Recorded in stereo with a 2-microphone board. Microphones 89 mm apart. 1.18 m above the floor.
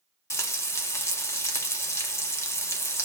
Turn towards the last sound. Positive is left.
turn(degrees=30)  # may be behind; listen again after turning